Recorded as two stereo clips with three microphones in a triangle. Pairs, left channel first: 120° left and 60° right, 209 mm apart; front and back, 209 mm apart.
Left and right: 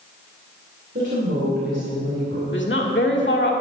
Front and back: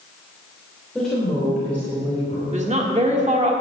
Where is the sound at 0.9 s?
90° right, 2.5 m; by 2.4 s 80° right, 3.5 m.